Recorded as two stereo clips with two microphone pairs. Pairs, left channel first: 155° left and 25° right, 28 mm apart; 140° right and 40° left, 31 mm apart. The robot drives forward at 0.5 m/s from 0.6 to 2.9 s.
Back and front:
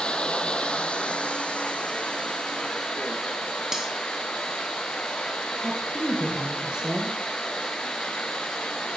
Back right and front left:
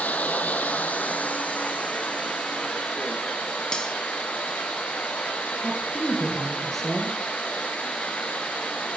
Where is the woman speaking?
65° right, 1.9 m.